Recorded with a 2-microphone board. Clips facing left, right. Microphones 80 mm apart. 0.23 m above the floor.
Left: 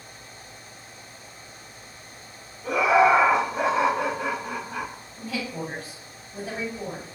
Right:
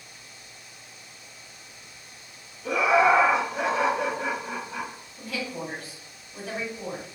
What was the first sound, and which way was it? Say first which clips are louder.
Laughter: left 2 dB; 15° left (ahead or behind).